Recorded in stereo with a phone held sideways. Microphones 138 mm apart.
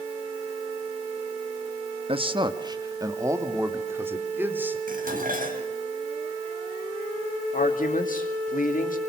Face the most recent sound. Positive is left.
turn(degrees=75)  # may be behind; listen again after turning